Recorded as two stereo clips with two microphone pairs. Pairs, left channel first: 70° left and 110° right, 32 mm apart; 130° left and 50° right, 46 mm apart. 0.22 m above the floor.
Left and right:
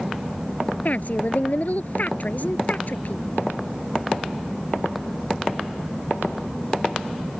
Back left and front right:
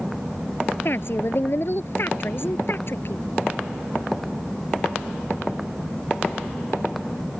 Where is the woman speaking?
100° left.